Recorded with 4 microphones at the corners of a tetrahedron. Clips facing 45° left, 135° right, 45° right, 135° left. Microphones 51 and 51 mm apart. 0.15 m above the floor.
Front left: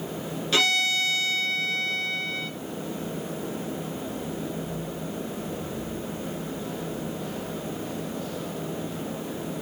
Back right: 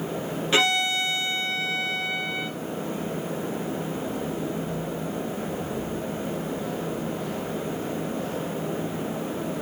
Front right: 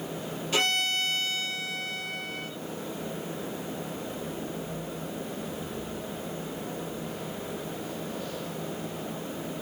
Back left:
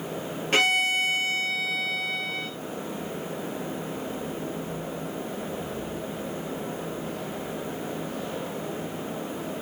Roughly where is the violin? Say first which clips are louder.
Back right 1 dB, back left 5 dB; behind.